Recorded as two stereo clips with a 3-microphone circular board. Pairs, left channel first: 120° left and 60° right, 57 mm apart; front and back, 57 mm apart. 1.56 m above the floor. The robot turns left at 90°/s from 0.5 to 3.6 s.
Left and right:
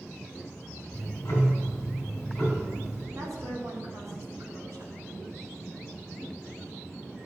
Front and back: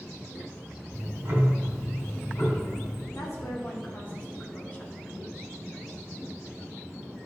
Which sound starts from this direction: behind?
Ticking, at 0.9 s.